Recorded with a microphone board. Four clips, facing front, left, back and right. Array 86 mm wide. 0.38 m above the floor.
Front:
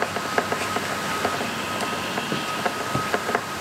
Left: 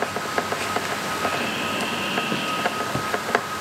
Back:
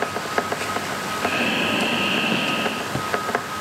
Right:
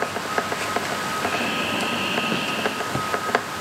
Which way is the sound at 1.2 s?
175° right.